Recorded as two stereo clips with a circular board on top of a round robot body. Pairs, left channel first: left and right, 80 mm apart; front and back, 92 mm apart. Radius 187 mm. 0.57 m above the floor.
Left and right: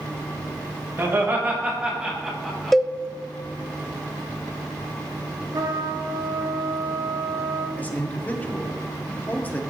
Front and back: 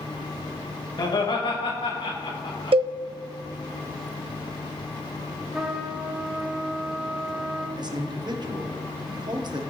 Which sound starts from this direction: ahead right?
Laughter, at 1.0 s.